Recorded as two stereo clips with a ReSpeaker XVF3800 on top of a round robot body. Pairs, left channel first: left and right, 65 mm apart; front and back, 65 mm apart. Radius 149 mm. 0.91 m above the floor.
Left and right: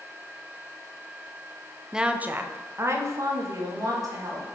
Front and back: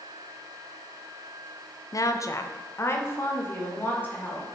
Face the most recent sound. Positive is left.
turn(degrees=-65)